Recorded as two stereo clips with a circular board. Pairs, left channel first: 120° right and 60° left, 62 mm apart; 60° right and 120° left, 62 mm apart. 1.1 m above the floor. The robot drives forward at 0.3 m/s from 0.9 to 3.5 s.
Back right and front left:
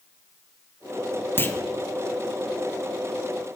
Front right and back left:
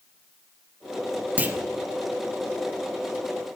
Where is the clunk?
175° right, 0.5 m.